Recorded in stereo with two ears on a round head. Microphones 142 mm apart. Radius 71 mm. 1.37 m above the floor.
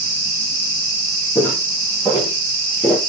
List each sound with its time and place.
1.4 s footsteps: 15° left (ahead or behind), 3 m; by 3.0 s 5° left (ahead or behind), 1.8 m